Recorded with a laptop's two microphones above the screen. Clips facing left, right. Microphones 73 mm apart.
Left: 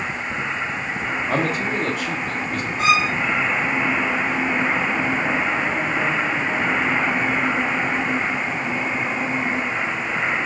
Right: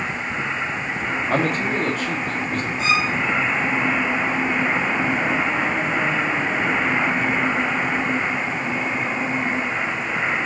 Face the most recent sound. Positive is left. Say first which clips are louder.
# left 4 dB
turn(degrees=65)  # may be behind; listen again after turning